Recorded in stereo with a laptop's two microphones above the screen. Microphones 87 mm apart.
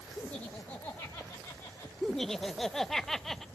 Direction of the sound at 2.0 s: 5° left (ahead or behind).